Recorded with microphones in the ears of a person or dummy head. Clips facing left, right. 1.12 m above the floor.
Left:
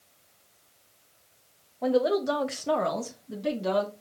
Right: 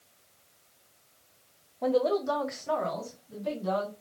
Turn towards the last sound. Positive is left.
turn(degrees=80)